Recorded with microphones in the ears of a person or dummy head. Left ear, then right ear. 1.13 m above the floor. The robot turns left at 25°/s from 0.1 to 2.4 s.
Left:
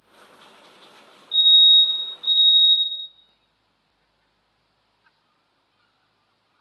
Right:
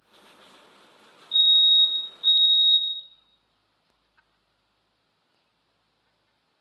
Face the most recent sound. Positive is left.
turn(degrees=-20)  # may be behind; listen again after turning